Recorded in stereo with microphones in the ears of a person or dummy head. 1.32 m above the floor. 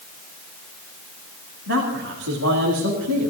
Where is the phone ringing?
No phone ringing in this recording.